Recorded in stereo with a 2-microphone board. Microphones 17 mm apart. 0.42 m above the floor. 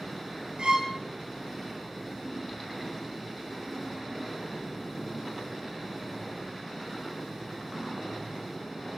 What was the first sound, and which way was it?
A violin, 75° right (ahead or behind).